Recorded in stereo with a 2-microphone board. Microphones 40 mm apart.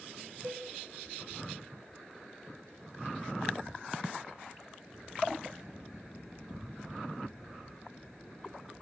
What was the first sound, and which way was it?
Dishes clattering, 50° right (ahead or behind).